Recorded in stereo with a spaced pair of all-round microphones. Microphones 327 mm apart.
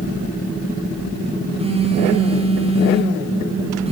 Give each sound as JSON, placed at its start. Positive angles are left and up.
{"t": 1.6, "sound": "a phone buzzing", "side_deg": -20, "distance_m": 1.6}